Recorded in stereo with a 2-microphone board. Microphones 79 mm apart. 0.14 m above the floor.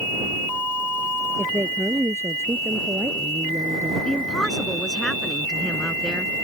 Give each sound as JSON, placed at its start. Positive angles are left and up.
{"t": 1.4, "sound": "a woman speaking", "side_deg": -35}
{"t": 4.0, "sound": "a woman speaking", "side_deg": 10}